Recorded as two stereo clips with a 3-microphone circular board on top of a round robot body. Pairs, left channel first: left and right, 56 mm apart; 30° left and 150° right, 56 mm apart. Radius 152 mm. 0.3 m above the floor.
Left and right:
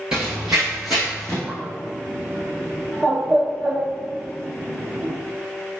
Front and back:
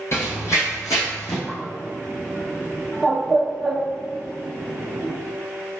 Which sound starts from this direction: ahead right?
A bird, at 1.5 s.